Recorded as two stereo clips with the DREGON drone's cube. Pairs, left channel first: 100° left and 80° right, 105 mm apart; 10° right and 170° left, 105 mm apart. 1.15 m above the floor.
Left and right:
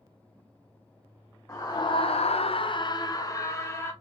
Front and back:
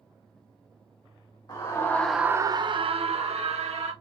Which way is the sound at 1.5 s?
35° left.